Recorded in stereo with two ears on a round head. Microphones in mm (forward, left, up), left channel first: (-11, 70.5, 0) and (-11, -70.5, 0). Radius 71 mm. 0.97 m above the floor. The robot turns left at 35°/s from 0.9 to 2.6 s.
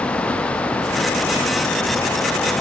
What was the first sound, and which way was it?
Only background noise.